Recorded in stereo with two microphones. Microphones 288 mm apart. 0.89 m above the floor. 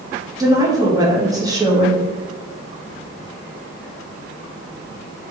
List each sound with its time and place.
0.4 s a woman speaking: 15° right (ahead or behind), 1.0 m